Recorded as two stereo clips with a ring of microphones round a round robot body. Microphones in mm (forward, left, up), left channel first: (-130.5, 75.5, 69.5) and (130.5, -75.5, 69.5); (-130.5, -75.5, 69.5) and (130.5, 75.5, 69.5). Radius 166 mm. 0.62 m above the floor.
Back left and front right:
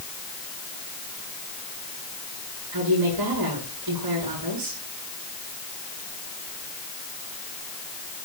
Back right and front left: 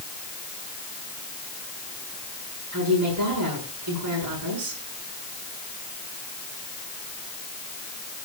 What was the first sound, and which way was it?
A woman speaking, 10° right.